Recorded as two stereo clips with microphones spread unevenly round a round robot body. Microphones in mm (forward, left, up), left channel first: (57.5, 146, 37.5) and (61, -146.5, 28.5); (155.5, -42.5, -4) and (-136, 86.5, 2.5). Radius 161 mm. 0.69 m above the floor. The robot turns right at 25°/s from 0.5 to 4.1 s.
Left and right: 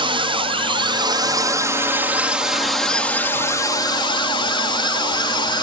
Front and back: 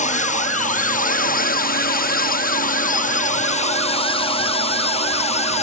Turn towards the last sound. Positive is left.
turn(degrees=25)